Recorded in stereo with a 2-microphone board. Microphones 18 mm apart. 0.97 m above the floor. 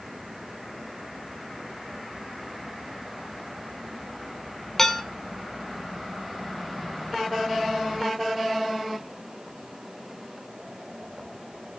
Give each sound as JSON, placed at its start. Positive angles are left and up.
{"t": 4.8, "sound": "dishes clattering", "side_deg": 25, "distance_m": 2.0}